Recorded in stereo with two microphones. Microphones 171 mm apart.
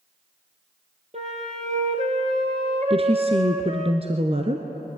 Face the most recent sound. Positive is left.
turn(degrees=-35)  # may be behind; listen again after turning